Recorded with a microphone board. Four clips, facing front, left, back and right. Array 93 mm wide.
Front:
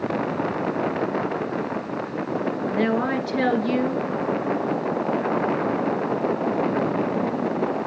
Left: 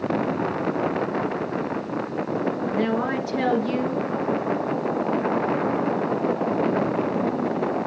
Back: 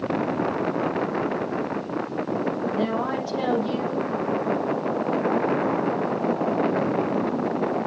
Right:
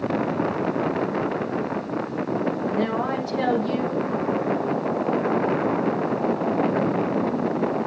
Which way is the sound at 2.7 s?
15° left.